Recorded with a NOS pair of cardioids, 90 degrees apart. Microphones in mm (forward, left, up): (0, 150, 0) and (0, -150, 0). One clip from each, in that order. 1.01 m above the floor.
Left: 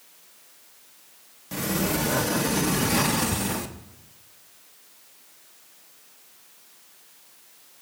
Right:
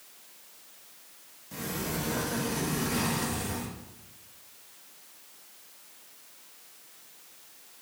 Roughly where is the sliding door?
Ahead left.